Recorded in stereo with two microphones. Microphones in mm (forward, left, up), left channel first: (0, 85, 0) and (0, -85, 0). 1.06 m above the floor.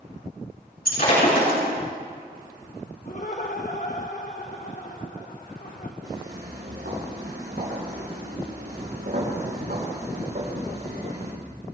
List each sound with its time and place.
0.8 s breaking glass: 60° left (ahead or behind), 6 m
3.0 s laughter: 50° left (ahead or behind), 0.9 m
6.0 s footsteps: 80° right, 6 m; by 11.3 s 55° right (ahead or behind), 7.5 m